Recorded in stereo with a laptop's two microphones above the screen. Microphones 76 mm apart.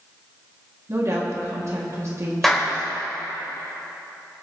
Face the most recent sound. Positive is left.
turn(degrees=5)  # may be behind; listen again after turning